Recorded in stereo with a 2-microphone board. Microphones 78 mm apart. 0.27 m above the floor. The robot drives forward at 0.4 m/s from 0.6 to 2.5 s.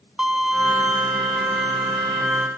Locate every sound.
0.2 s a violin: 10° right (ahead or behind), 0.5 m; by 2.5 s 5° right (ahead or behind), 1.3 m